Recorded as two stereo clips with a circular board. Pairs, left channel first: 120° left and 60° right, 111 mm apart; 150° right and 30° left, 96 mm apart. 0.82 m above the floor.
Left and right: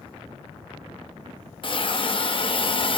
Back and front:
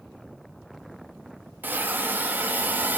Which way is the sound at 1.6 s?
95° left.